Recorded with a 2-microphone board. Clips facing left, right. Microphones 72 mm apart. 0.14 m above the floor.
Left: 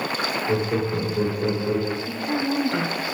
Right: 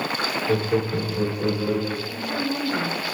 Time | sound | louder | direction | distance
0.5 | laughter | right 2 dB | 10° left (ahead or behind) | 6.5 m
2.1 | a woman speaking | left 2 dB | 70° left (ahead or behind) | 4.5 m